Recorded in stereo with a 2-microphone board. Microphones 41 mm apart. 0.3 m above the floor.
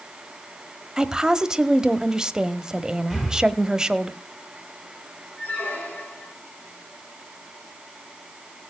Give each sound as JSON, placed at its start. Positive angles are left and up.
{"t": 1.0, "sound": "a woman speaking", "side_deg": -20, "distance_m": 1.1}
{"t": 3.1, "sound": "breathing", "side_deg": 0, "distance_m": 8.5}
{"t": 5.4, "sound": "a squeak", "side_deg": 35, "distance_m": 4.0}